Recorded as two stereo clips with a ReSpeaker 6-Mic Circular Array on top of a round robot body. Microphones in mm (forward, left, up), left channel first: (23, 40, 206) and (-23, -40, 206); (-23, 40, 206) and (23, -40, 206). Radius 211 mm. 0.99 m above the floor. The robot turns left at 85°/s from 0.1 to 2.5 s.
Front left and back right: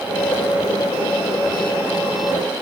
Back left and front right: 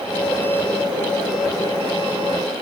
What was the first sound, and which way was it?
Only background noise.